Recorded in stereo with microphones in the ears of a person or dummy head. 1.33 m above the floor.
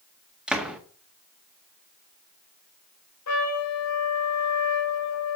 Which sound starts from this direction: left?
A trumpet, at 3.3 s.